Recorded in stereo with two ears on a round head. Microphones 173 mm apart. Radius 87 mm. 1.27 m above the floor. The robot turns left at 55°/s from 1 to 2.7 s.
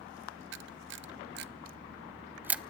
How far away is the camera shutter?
About 0.5 m.